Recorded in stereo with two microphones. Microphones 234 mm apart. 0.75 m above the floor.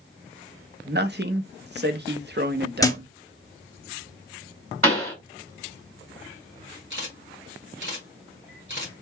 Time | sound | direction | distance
0.8 | a man speaking | 45° right (ahead or behind) | 0.6 m
2.8 | a thud | 15° left (ahead or behind) | 0.6 m
4.8 | a pop | 65° right (ahead or behind) | 2.0 m
6.9 | a camera shutter | 50° right (ahead or behind) | 1.7 m